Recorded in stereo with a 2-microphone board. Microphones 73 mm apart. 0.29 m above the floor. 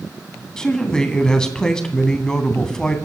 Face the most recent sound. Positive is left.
turn(degrees=10)  # may be behind; listen again after turning